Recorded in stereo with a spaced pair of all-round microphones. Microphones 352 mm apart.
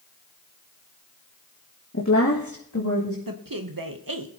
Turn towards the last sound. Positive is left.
turn(degrees=-70)  # may be behind; listen again after turning